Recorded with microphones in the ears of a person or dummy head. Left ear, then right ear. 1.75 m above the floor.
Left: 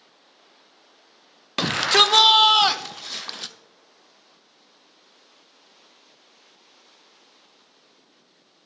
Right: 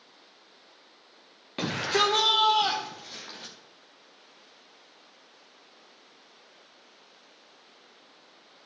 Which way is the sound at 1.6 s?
50° left (ahead or behind).